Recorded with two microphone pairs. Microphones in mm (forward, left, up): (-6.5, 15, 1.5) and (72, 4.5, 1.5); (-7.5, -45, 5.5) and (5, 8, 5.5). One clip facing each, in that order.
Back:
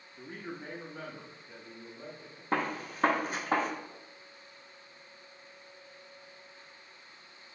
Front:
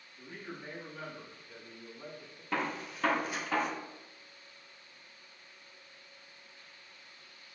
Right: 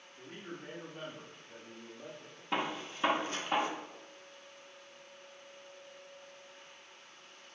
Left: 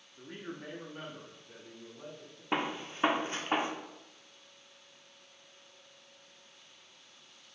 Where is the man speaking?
150° left, 0.7 m; by 2.4 s 100° left, 2.5 m.